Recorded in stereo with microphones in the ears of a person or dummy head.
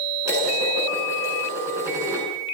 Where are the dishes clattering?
10° right (ahead or behind), 9.5 m.